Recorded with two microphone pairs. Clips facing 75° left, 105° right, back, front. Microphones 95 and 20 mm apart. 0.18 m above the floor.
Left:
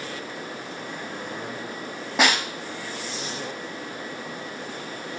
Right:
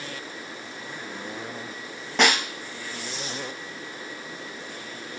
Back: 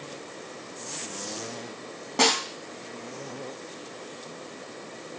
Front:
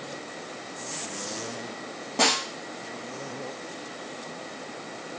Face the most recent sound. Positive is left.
turn(degrees=150)